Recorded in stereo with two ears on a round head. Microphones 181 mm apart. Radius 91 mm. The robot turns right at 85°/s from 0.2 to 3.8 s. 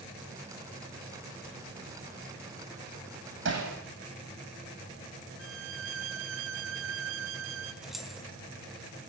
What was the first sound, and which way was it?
Hammering, 65° right (ahead or behind).